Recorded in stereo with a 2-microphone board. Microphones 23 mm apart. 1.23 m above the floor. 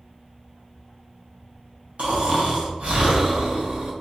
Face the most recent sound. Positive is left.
turn(degrees=-75)  # may be behind; listen again after turning